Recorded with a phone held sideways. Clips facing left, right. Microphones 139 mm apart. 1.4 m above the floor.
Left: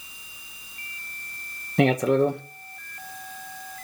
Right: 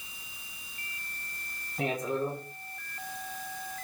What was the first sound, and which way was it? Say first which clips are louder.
A man speaking: left 11 dB; 80° left.